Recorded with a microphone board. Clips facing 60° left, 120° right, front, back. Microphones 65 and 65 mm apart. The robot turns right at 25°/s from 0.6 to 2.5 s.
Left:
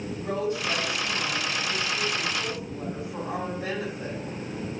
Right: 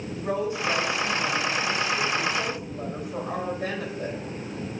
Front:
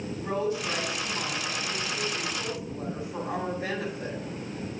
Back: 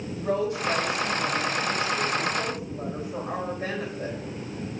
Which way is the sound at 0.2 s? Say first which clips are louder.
Right 2 dB, back 3 dB; 170° left.